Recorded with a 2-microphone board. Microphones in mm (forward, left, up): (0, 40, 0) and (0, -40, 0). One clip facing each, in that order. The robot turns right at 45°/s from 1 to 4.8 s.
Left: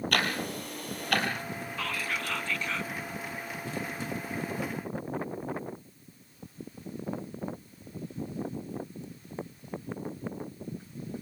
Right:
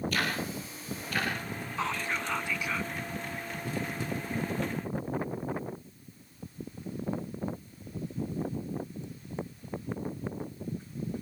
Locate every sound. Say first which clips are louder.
0.1 s ticking: left 2 dB; 65° left (ahead or behind), 3.5 m; by 1.3 s 70° left (ahead or behind), 3.5 m
1.8 s whispering: right 3 dB; 25° right (ahead or behind), 1.6 m; by 2.9 s 5° right (ahead or behind), 1.6 m